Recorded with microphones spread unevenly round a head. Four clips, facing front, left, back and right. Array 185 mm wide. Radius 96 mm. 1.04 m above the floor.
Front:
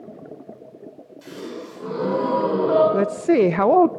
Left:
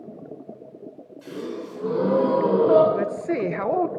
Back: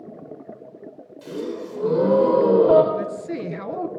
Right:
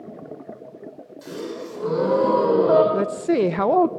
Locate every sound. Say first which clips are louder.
1.2 s a gasp: right 1 dB, back 5 dB; 165° right, 4 m
2.9 s a woman speaking: right 4 dB, front 9 dB; 25° right, 0.6 m